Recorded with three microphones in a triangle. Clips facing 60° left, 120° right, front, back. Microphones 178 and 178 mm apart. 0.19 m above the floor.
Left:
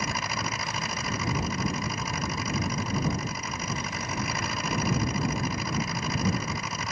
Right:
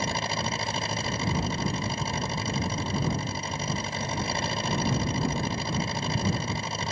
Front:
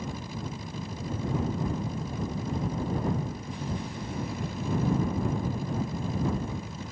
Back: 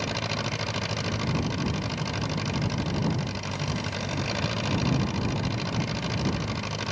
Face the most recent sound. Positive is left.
turn(degrees=180)